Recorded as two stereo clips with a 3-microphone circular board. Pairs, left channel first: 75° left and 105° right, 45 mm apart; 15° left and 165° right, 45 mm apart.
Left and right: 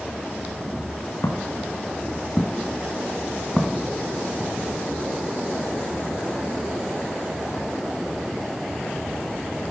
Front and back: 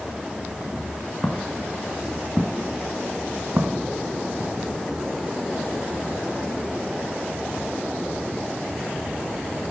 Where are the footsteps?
95° left, 4 m; by 4.5 s 175° right, 3.5 m.